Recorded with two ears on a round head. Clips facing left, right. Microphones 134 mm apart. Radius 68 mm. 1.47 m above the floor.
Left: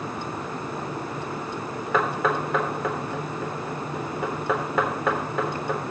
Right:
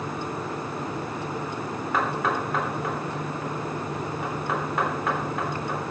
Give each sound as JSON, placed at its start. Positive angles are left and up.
{"t": 1.9, "sound": "knocking", "side_deg": 75, "distance_m": 3.5}